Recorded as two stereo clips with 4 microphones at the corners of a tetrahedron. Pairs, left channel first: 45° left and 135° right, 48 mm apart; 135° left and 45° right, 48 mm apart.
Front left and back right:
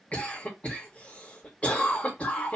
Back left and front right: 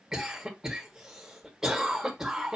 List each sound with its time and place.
0.1 s a cough: 25° left, 1.4 m